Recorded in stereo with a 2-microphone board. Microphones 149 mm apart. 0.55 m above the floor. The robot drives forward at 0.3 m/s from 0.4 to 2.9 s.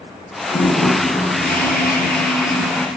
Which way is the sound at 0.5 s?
75° left (ahead or behind).